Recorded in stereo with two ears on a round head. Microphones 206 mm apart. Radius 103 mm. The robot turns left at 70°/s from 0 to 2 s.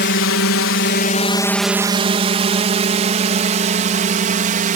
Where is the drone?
50° left (ahead or behind); by 4.8 s 35° right (ahead or behind).